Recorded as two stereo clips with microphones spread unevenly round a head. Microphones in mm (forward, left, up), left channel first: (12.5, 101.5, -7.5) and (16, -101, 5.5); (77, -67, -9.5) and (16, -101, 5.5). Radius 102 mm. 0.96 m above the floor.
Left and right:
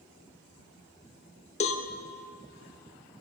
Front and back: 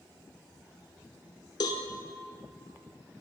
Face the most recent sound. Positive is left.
turn(degrees=35)